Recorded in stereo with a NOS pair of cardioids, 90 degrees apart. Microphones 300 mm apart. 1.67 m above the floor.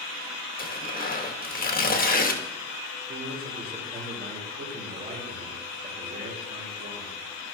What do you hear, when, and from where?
0.6 s tearing paper: 30° left, 1.2 m
3.1 s a man speaking: 30° right, 4 m